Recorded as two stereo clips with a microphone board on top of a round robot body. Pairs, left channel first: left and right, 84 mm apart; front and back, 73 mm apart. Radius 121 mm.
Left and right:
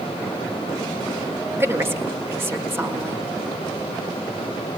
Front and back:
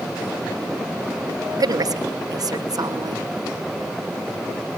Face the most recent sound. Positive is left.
turn(degrees=-150)